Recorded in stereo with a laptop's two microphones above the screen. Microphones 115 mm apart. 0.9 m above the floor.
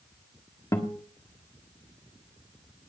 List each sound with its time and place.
0.7 s a guitar: 25° left (ahead or behind), 1.5 m